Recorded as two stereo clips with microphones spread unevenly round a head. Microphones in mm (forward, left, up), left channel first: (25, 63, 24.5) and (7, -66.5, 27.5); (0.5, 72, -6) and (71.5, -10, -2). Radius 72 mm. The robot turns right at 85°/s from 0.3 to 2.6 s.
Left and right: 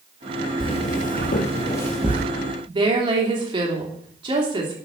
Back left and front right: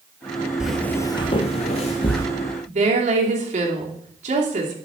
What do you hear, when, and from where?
0.6 s footsteps: 30° left, 1.5 m; by 2.2 s 165° right, 1.9 m
2.7 s a woman speaking: 45° right, 3 m